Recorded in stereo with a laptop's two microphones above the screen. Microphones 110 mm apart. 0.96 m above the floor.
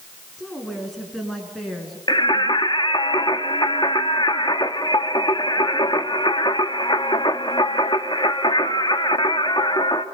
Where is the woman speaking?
Centre (ahead or behind), 9 m.